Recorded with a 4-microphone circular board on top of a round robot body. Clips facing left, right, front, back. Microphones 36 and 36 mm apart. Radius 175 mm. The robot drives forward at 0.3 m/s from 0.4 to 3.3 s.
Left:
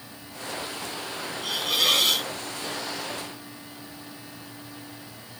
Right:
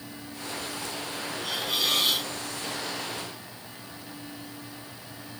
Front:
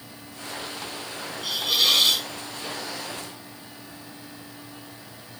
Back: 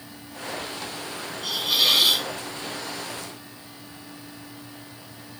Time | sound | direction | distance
1.4 | a hiss | 90° left | 0.8 m